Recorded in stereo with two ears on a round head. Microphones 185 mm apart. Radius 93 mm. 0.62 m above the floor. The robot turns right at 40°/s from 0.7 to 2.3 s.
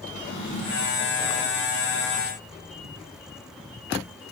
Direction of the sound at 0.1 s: 70° left (ahead or behind).